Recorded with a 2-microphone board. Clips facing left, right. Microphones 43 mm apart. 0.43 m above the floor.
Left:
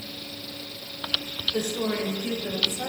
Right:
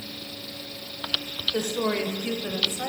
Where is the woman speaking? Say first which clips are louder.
Right 2 dB; 45° right (ahead or behind), 1.6 m; by 2.9 s 40° right (ahead or behind), 2.5 m.